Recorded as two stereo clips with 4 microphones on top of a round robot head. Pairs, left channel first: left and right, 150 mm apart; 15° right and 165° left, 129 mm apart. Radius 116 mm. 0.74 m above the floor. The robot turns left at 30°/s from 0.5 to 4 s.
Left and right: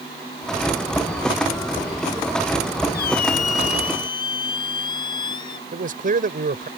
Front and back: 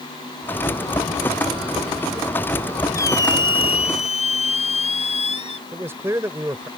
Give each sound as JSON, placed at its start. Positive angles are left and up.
{"t": 2.9, "sound": "a squeak", "azimuth_deg": 55}
{"t": 5.7, "sound": "a man speaking", "azimuth_deg": -120}